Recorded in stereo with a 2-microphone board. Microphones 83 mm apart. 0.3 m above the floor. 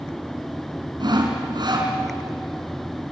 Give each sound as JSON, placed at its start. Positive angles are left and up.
{"t": 1.0, "sound": "sawing", "side_deg": -60, "distance_m": 3.0}